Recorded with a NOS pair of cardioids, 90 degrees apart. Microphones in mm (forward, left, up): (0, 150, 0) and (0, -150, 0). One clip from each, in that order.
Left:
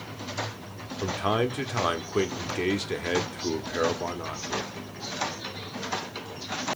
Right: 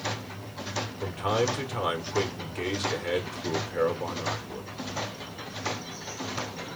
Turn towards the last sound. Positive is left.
turn(degrees=30)